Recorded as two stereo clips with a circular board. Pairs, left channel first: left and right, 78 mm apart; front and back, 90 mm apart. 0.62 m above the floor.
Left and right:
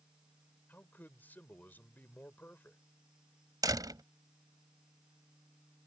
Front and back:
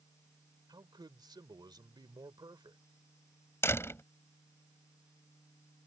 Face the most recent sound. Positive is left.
turn(degrees=-60)